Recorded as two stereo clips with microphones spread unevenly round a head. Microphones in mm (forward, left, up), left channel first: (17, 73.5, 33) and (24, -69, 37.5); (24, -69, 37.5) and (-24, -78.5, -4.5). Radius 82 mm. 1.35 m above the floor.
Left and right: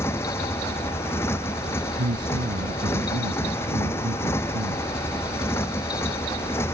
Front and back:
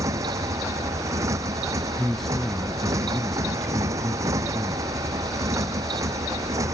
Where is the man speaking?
70° right.